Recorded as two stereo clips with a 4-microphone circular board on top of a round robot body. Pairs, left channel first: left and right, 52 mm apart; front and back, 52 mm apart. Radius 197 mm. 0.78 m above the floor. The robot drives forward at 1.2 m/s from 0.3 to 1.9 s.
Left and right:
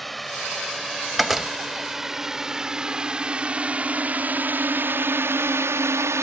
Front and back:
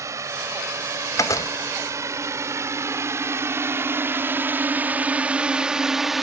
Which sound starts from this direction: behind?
A drone, at 0.0 s.